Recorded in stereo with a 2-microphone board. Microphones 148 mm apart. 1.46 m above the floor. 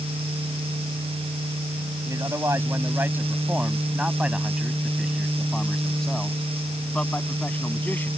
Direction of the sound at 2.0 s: 20° right (ahead or behind).